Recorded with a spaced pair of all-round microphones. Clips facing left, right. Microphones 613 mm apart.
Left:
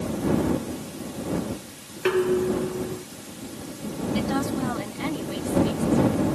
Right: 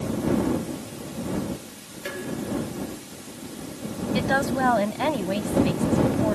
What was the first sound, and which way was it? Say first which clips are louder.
Dishes clattering: left 10 dB; 80° left.